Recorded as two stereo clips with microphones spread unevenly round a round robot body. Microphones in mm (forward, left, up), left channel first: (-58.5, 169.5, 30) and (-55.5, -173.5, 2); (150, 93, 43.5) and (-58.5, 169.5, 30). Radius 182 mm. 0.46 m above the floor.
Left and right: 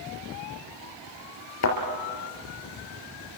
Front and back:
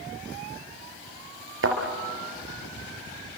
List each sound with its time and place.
1.6 s a thud: 135° left, 4 m